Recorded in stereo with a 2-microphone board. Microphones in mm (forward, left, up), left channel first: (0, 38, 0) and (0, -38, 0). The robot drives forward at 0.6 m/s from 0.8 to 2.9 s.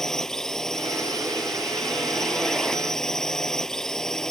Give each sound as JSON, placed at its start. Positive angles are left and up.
{"t": 0.0, "sound": "a drone", "side_deg": 5}